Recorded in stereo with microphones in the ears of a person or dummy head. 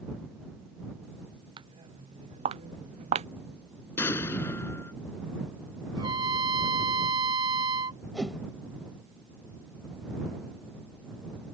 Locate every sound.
1.6 s footsteps: 30° right (ahead or behind); by 3.3 s 35° right (ahead or behind)
4.0 s an explosion: 15° left (ahead or behind)
6.0 s a trumpet: 25° right (ahead or behind)
8.1 s a whoosh: centre (ahead or behind)